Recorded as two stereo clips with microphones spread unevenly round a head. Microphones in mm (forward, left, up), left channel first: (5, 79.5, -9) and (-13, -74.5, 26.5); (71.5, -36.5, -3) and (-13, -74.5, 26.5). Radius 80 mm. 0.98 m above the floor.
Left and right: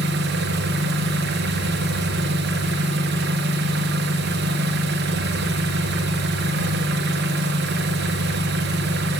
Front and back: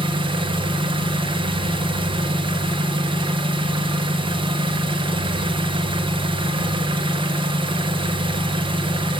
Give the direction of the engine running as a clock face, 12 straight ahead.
4 o'clock.